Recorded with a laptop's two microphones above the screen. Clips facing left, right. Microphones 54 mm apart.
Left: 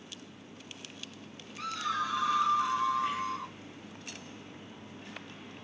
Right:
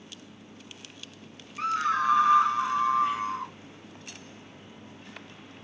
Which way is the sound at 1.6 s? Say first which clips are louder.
Right 7 dB; 40° right (ahead or behind).